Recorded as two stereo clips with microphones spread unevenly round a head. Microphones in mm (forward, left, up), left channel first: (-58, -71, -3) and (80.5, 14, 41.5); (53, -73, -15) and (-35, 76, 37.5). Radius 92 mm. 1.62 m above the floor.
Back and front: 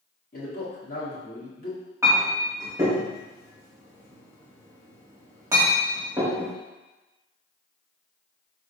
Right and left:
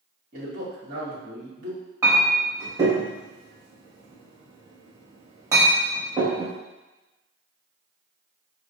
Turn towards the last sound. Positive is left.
turn(degrees=80)